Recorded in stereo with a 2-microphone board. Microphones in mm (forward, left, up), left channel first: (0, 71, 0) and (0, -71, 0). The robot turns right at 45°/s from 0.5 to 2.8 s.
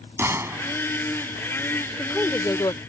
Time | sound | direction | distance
0.2 | a gunshot | 20° right (ahead or behind) | ?
1.9 | a woman speaking | 5° left | ?